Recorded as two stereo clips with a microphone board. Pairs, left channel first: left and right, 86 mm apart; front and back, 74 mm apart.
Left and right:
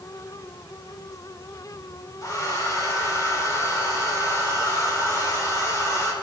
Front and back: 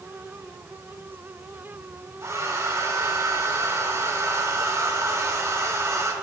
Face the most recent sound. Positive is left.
turn(degrees=135)